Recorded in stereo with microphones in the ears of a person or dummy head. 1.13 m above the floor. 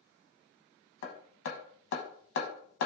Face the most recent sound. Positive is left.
turn(degrees=60)  # may be behind; listen again after turning